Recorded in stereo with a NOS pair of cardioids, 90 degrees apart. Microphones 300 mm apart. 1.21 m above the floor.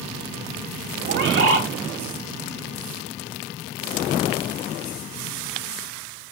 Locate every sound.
1.1 s a bird: 45° right, 3 m